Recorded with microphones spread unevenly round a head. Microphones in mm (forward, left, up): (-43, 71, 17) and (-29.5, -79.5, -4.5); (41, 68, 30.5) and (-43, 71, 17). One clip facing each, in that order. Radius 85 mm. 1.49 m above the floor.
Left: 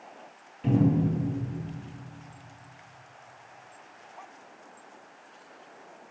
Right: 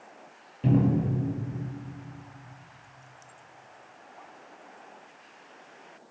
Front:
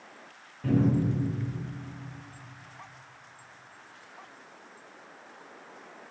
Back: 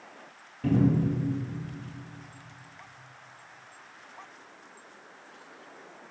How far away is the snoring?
I don't hear snoring.